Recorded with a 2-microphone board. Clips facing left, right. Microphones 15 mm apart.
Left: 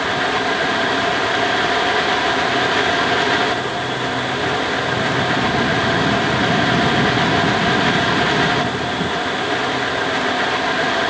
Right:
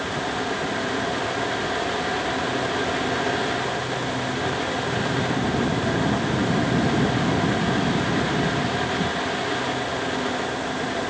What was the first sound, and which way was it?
Only background noise.